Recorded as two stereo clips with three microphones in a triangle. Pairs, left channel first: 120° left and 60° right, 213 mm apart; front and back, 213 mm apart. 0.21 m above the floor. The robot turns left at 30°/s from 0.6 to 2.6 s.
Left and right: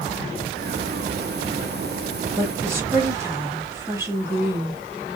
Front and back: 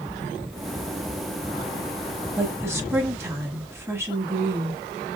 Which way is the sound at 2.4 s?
115° right.